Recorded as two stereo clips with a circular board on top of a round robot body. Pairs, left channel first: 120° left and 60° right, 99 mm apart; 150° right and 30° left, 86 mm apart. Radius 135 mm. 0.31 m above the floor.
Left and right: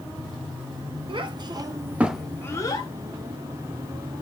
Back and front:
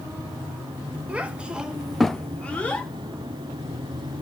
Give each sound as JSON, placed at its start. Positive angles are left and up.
{"t": 1.1, "sound": "a child speaking", "azimuth_deg": -45, "distance_m": 1.0}